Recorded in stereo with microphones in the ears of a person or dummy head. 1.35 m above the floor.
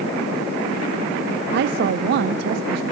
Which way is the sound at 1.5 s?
60° right (ahead or behind).